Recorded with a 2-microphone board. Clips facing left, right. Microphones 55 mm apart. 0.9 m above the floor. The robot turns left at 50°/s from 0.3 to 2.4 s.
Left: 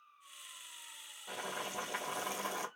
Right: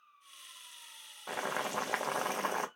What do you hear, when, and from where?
1.3 s boiling: 75° right, 0.7 m; by 2.7 s 130° right, 0.7 m